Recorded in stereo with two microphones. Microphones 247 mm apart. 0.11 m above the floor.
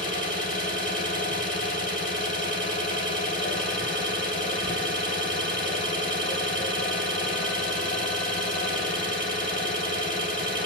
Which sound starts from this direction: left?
An engine running, at 0.0 s.